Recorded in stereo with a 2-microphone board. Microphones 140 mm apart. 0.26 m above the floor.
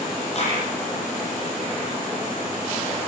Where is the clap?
50° left (ahead or behind), 9.5 m.